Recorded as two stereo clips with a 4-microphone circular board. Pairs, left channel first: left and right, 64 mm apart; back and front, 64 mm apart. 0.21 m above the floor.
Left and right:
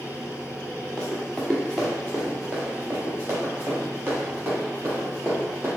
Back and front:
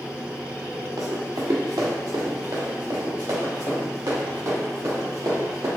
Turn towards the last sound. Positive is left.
turn(degrees=-35)